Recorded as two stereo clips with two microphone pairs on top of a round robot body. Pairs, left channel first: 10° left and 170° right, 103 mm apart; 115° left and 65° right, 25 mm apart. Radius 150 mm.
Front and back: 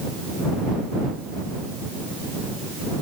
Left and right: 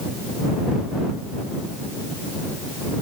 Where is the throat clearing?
No throat clearing in this recording.